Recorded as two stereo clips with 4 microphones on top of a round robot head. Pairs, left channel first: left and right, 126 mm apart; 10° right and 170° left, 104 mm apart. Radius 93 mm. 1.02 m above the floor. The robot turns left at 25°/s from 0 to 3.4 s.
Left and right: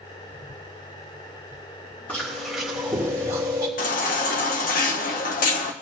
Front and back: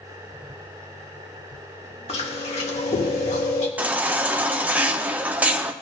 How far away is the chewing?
About 2 m.